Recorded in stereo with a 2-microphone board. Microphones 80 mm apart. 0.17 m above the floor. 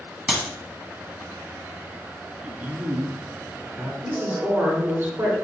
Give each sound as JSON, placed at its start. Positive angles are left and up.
{"t": 0.3, "sound": "a clap", "side_deg": -10, "distance_m": 0.8}
{"t": 2.4, "sound": "a man speaking", "side_deg": -20, "distance_m": 1.1}
{"t": 4.0, "sound": "a woman speaking", "side_deg": -35, "distance_m": 1.8}